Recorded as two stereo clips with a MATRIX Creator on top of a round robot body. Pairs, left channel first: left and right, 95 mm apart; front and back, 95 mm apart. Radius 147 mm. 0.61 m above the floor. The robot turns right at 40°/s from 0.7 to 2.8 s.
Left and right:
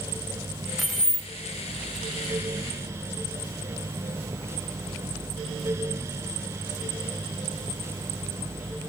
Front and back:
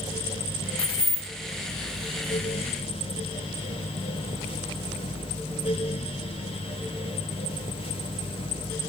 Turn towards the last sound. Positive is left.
turn(degrees=80)